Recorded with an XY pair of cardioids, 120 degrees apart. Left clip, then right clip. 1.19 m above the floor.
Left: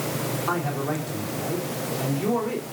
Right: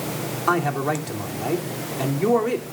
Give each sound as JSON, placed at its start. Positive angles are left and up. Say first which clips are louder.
{"t": 0.5, "sound": "a man speaking", "louder": "right 8 dB", "azimuth_deg": -45, "distance_m": 3.0}